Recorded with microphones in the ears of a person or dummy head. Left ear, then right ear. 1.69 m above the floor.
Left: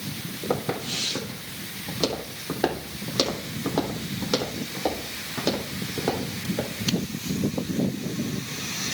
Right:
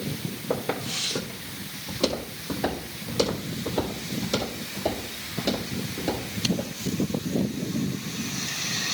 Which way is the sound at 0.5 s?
15° left (ahead or behind).